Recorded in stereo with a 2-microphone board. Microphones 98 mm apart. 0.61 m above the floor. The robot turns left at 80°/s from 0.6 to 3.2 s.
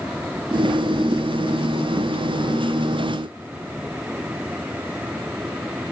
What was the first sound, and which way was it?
Only background noise.